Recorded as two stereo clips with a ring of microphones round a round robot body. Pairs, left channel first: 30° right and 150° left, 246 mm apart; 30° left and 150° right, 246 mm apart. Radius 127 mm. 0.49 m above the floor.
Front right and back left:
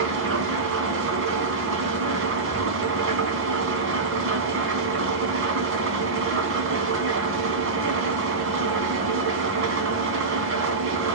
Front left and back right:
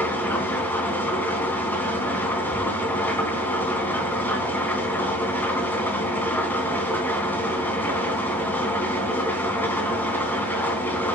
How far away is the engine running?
About 3 m.